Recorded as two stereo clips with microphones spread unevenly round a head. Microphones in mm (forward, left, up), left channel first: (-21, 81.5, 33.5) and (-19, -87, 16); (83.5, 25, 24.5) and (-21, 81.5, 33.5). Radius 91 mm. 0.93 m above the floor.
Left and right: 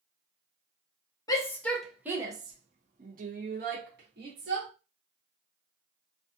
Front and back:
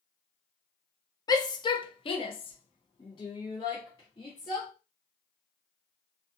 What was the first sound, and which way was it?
A shout, 20° left.